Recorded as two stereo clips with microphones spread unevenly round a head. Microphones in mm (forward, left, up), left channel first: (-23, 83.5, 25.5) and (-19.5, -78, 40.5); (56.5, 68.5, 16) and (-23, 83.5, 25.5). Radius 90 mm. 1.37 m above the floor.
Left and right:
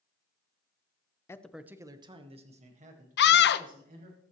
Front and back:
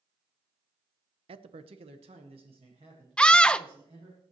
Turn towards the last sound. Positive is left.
turn(degrees=70)